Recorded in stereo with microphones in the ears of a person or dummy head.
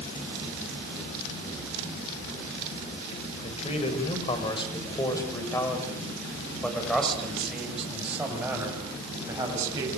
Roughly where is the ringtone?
No ringtone in this recording.